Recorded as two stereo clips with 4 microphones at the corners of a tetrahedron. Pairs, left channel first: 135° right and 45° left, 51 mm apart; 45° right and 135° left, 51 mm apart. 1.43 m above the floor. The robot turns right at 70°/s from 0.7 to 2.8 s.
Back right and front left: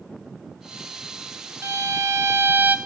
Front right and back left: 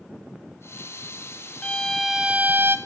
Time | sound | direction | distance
1.6 | a violin | 20° left | 1.0 m